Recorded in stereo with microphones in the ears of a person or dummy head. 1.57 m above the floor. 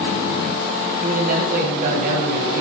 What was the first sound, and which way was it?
A man speaking, 45° right (ahead or behind).